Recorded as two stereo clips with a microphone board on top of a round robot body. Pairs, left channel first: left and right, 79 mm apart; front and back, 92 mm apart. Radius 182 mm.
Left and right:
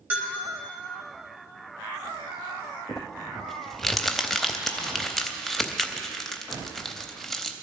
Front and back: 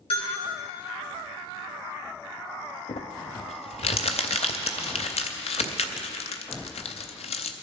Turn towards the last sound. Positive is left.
turn(degrees=5)